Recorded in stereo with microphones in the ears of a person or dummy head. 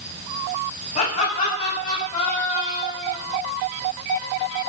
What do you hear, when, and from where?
0.9 s laughter: 35° left (ahead or behind), 9.5 m; by 3.2 s 40° left (ahead or behind), 8 m